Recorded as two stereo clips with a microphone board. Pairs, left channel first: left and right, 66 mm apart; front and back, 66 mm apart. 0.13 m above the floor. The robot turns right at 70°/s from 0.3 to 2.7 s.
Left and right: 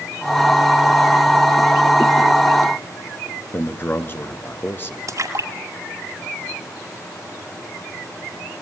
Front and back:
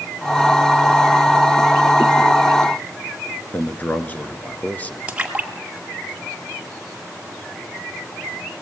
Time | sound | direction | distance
3.5 | a man speaking | 50° left | 1.4 m
5.1 | a splash | 110° right | 2 m